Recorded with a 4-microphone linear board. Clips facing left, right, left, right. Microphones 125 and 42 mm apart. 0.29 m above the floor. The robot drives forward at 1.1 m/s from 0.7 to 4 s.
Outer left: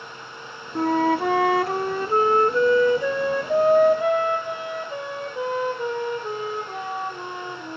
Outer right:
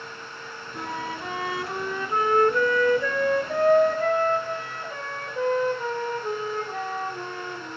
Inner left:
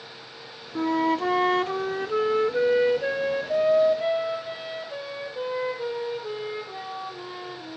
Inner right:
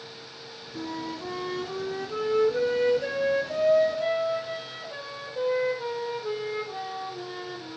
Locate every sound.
0.8 s a flute: 45° left (ahead or behind), 0.9 m; by 7.8 s 10° left (ahead or behind), 3 m